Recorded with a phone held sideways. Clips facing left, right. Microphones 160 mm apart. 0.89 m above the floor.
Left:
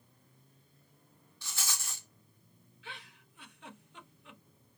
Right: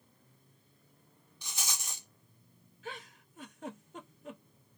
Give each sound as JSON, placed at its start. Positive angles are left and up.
{"t": 1.4, "sound": "a rattle", "side_deg": -20, "distance_m": 0.6}
{"t": 2.8, "sound": "a giggle", "side_deg": -45, "distance_m": 0.5}